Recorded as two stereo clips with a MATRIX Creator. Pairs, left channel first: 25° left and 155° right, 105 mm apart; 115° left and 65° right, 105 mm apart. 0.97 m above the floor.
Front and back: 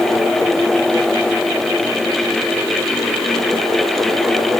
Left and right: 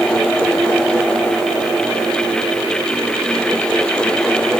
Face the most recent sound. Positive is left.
No sound to turn to.